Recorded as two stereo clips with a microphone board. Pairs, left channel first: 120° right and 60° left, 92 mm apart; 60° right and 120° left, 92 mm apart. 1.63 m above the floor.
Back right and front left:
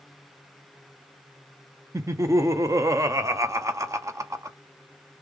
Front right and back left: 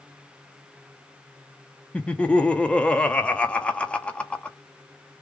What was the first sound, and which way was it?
Laughter, 15° left.